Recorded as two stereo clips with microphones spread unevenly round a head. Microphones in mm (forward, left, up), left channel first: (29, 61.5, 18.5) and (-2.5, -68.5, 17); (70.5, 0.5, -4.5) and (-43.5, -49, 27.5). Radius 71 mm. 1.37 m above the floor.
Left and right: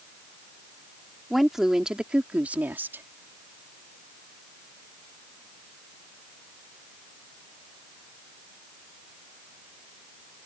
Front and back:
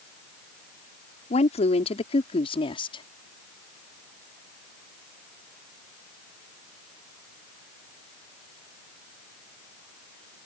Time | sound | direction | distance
1.3 | a woman speaking | 15° right | ?